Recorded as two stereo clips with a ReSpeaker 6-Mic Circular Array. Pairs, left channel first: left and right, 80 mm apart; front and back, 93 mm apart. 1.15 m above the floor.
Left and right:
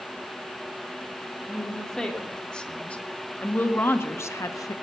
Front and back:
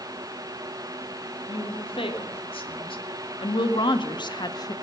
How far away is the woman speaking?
About 3 m.